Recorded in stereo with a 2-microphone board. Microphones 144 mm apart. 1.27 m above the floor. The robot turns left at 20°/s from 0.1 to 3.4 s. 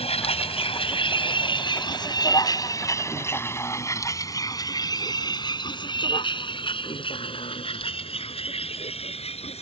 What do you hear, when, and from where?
0.0 s a vehicle: 45° left (ahead or behind)